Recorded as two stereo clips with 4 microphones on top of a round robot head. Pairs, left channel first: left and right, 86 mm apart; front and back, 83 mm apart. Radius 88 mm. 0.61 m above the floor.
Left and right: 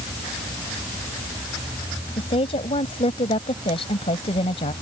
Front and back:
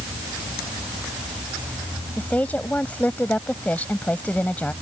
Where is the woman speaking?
70° left.